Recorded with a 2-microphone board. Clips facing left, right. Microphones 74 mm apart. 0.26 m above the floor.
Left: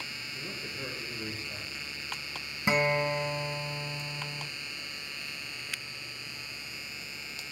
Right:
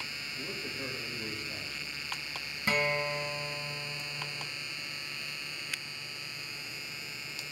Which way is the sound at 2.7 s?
20° left (ahead or behind).